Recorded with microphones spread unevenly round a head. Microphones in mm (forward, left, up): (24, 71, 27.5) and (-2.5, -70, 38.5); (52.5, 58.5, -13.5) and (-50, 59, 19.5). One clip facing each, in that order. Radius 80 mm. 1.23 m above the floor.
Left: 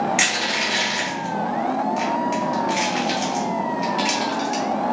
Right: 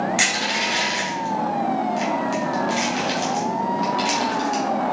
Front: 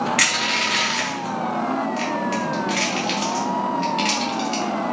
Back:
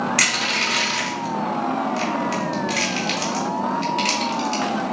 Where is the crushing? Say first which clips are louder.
Even, front 1 dB; 155° left, 1.7 m.